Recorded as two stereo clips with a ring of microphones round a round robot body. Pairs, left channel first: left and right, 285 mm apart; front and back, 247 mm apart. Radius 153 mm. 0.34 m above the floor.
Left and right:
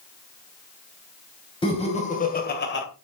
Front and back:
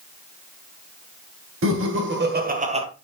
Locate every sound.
1.6 s laughter: 160° left, 3 m; by 2.9 s 120° left, 2 m